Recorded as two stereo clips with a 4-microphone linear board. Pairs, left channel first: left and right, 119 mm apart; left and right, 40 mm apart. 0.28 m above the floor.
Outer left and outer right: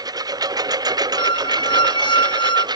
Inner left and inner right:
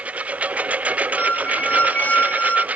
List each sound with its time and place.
0.0 s a lawn mower: 30° right (ahead or behind); by 2.8 s 35° right (ahead or behind)
1.2 s a squeak: 45° left (ahead or behind)